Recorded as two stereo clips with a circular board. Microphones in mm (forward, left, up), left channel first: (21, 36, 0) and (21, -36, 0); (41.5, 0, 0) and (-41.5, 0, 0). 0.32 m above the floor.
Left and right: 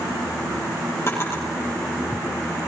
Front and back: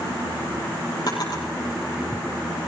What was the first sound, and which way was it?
A drawer, 35° left.